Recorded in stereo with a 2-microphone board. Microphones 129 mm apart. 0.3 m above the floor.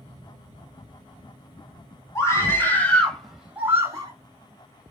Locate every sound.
2.1 s a scream: 25° left (ahead or behind), 2.5 m; by 4.1 s 30° right (ahead or behind), 1.3 m